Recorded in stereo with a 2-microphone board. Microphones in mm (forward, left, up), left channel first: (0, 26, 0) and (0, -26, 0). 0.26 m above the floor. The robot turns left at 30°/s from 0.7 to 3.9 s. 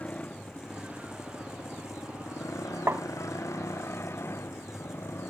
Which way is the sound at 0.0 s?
150° left.